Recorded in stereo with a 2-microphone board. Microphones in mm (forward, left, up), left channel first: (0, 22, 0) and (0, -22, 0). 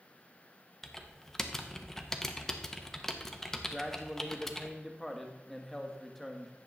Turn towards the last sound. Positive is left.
turn(degrees=5)  # may be behind; listen again after turning